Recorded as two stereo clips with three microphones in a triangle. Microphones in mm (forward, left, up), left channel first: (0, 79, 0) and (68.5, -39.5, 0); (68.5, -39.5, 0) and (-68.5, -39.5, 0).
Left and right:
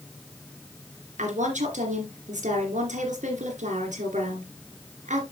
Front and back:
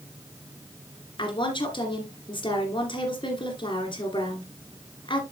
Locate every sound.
1.2 s a woman speaking: 50° right, 2.5 m